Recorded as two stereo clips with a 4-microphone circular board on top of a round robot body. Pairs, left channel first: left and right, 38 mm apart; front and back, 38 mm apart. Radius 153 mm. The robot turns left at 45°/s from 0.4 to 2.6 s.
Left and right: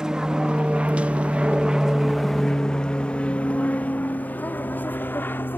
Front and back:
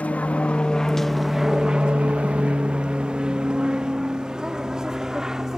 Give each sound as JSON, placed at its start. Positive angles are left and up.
{"t": 0.0, "sound": "an aircraft", "azimuth_deg": -25}